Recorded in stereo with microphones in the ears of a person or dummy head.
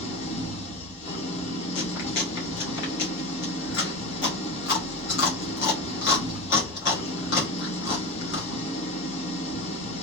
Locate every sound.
0.0 s an engine running: 30° left (ahead or behind), 1.2 m
1.8 s chewing: 60° left (ahead or behind), 1.1 m